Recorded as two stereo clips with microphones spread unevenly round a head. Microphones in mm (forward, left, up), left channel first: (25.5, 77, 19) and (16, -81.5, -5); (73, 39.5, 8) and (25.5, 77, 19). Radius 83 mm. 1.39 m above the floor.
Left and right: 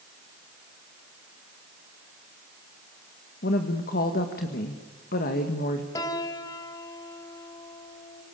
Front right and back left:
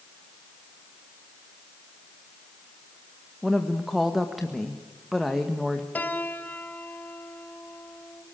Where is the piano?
25° left, 2 m.